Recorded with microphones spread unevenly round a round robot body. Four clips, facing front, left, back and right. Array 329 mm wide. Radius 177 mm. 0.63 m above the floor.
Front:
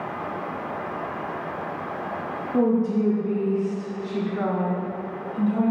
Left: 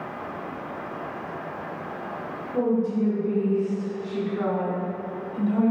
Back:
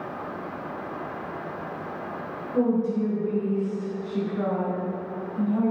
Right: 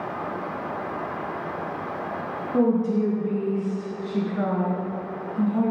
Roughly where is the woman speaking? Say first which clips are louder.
Right 2 dB, front 2 dB; ahead right.